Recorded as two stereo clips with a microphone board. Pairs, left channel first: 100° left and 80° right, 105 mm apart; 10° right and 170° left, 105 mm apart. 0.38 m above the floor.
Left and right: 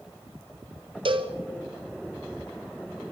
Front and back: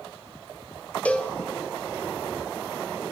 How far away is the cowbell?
About 1.9 m.